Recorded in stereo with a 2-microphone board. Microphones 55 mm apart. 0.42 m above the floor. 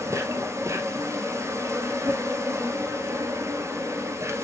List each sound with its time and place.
0.0 s an insect: 65° right (ahead or behind), 1.1 m